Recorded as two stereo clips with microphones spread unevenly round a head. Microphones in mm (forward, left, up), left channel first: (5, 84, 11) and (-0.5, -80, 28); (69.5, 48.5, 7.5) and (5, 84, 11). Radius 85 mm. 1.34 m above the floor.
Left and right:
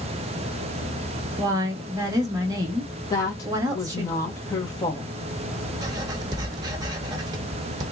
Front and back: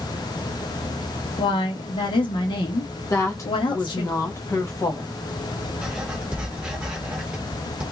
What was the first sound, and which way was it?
A woman speaking, 25° right.